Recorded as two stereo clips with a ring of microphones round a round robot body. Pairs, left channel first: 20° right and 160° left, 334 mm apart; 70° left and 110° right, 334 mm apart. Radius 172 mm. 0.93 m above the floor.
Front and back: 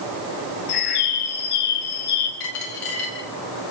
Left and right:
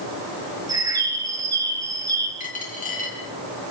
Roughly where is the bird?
Ahead right.